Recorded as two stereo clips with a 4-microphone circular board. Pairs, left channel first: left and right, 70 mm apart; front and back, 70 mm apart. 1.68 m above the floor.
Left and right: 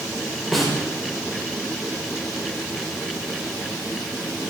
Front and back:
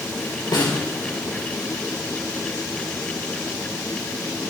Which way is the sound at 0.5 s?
Straight ahead.